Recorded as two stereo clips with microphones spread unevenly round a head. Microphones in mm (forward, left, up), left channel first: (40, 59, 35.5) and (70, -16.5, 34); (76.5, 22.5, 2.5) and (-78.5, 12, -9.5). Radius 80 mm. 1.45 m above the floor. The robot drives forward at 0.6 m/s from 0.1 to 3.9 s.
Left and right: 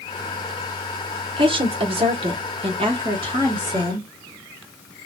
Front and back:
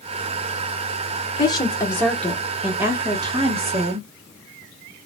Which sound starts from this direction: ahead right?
A woman speaking, at 1.4 s.